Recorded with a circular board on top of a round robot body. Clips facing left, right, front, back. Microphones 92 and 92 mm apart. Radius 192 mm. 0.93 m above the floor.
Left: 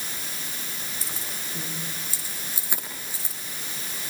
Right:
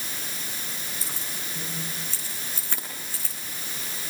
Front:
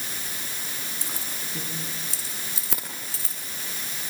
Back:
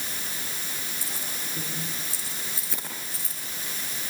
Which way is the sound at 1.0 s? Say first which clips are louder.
Even, even; straight ahead.